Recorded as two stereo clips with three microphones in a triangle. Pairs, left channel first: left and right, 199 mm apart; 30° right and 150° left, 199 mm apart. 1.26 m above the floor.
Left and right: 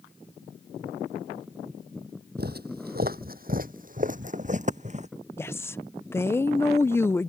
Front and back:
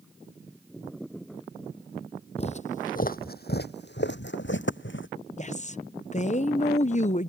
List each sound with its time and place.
2.4 s footsteps: 80° right; by 5.1 s 35° right
5.4 s a woman speaking: 15° left